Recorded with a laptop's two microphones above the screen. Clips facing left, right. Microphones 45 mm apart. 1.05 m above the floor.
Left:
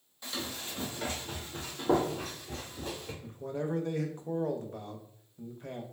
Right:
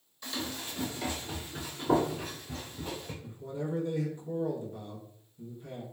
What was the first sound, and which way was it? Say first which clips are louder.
Running footsteps: right 1 dB; 15° left (ahead or behind).